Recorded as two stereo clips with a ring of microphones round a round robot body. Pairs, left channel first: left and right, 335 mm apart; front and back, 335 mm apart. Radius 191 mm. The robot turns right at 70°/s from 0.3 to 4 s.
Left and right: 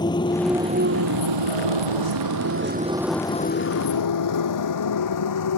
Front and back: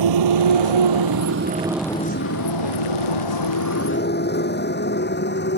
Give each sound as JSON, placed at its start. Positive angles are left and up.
{"t": 0.0, "sound": "a motorcycle", "azimuth_deg": 170}